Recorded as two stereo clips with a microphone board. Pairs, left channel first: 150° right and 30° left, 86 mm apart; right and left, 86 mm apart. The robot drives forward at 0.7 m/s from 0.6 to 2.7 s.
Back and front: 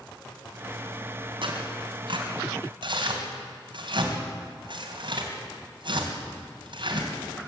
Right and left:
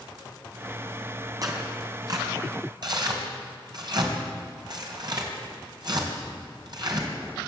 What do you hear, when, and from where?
1.4 s tearing paper: 45° left, 4 m; by 7.1 s 55° left, 3.5 m